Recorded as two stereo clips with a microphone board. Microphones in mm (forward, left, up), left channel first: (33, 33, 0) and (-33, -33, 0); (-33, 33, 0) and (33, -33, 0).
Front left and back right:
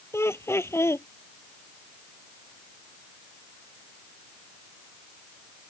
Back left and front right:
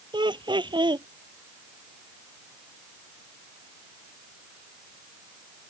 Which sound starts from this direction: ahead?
Laughter, at 0.1 s.